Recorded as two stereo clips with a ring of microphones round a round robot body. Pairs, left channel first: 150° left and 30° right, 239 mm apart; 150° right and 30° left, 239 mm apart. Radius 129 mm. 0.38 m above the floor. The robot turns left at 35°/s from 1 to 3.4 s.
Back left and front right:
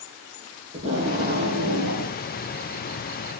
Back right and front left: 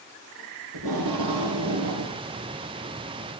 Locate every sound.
0.7 s tape being pulled: 35° left, 6.5 m; by 2.2 s 10° right, 6.5 m